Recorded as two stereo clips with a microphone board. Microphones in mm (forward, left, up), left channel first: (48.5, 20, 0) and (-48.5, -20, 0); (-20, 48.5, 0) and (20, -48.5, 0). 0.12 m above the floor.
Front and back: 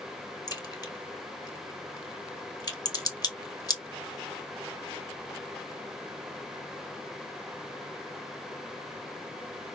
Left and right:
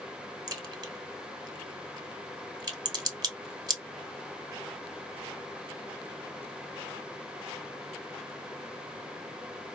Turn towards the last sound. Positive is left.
turn(degrees=-20)